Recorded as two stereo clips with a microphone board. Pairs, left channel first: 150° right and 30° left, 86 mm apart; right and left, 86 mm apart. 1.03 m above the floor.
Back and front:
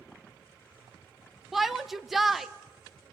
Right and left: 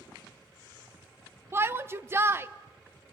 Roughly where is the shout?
Behind left.